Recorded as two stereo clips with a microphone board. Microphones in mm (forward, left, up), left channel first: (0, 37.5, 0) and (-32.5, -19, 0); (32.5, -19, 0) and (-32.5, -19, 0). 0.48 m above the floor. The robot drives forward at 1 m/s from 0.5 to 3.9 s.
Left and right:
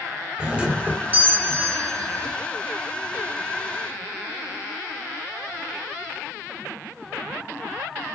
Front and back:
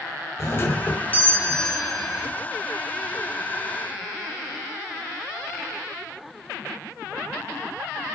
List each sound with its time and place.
0.4 s a doorbell: 50° right, 2.5 m; by 2.3 s 100° right, 2 m